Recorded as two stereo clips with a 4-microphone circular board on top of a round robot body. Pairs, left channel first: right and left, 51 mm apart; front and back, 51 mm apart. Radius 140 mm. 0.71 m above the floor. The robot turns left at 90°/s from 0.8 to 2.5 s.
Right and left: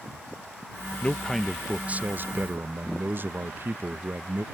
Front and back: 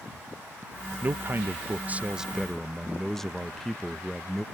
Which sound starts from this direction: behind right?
A man speaking, at 1.0 s.